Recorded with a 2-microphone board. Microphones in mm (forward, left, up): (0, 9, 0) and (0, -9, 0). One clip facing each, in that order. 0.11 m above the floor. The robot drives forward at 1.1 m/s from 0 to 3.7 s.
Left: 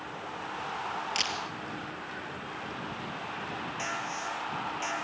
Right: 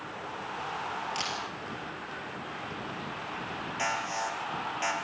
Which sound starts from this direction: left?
A camera shutter, at 1.1 s.